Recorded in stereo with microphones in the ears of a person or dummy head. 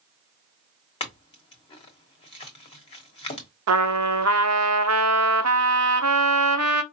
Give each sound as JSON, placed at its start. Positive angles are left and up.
{"t": 1.0, "sound": "a clink", "side_deg": 30, "distance_m": 1.1}
{"t": 3.7, "sound": "a trumpet", "side_deg": -75, "distance_m": 0.6}